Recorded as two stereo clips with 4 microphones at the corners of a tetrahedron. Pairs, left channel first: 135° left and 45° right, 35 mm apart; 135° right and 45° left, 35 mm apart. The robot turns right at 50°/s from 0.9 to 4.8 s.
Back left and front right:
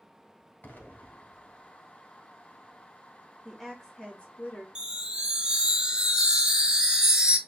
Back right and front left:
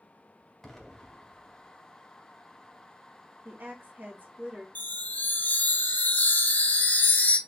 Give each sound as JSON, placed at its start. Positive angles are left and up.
{"t": 0.6, "sound": "an explosion", "azimuth_deg": 155, "distance_m": 1.1}
{"t": 3.5, "sound": "a woman speaking", "azimuth_deg": 35, "distance_m": 1.0}
{"t": 4.8, "sound": "a chime", "azimuth_deg": -115, "distance_m": 0.6}